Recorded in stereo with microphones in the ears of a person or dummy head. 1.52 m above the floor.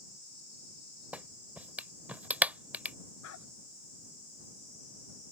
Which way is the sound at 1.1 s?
Centre (ahead or behind).